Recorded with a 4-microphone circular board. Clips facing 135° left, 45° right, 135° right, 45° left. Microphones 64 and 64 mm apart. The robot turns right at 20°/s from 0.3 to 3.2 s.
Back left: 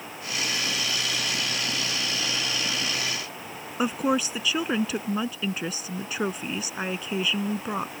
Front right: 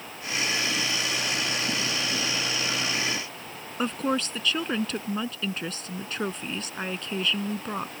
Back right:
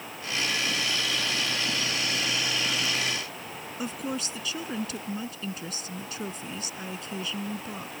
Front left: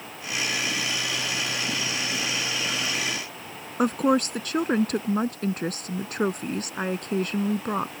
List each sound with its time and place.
3.8 s a woman speaking: 55° left